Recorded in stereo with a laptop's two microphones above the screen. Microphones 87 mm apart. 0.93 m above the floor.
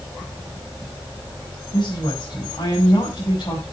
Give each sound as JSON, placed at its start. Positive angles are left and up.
{"t": 1.7, "sound": "a woman speaking", "side_deg": 45, "distance_m": 5.5}